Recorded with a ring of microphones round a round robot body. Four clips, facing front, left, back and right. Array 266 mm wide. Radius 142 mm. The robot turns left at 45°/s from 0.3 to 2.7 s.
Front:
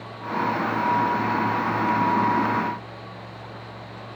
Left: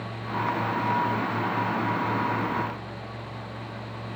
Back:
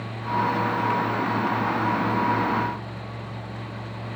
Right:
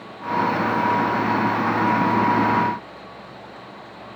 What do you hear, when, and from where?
Only background noise.